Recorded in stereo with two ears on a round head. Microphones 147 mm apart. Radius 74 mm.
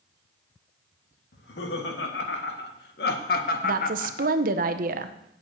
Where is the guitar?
I don't hear a guitar.